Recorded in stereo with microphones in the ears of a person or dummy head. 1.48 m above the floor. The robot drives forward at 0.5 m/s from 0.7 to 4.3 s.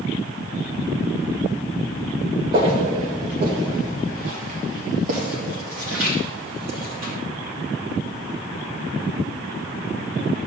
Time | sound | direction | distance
2.5 | footsteps | 30° right (ahead or behind) | 1.7 m